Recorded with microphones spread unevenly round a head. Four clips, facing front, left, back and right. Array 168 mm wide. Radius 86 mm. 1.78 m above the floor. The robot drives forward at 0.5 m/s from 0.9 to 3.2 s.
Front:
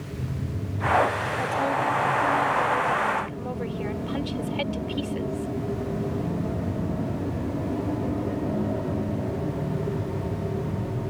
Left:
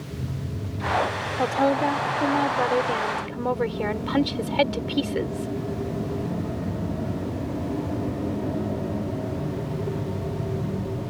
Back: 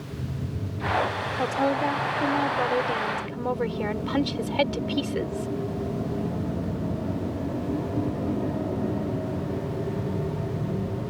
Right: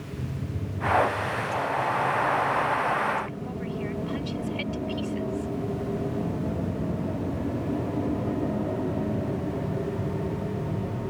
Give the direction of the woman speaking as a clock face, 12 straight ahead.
8 o'clock.